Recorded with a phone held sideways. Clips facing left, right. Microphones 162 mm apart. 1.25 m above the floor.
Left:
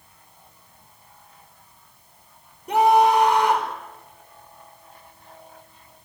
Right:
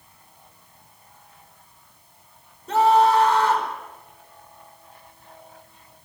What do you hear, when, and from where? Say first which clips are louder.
2.7 s a scream: even; 15° left (ahead or behind), 5 m